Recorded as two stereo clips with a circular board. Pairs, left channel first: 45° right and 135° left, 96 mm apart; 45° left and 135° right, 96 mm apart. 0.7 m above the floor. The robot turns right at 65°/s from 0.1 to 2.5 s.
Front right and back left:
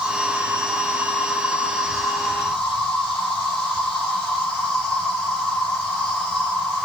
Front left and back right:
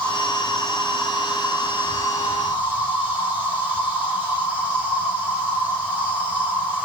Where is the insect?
90° left, 1.6 m; by 6.9 s 115° right, 1.6 m.